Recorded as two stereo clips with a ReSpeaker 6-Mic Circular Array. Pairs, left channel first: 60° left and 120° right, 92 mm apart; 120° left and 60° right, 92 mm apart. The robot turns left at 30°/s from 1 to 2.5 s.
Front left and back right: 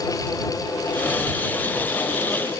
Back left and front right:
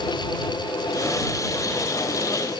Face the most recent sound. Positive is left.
No sound to turn to.